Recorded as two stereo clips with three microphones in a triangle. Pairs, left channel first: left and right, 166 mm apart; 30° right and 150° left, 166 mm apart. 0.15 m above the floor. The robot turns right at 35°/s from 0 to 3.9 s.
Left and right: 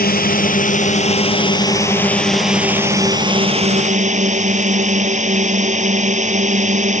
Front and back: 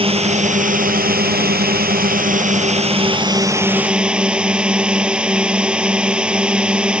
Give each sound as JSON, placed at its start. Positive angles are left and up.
{"t": 0.0, "sound": "a drone", "azimuth_deg": 95}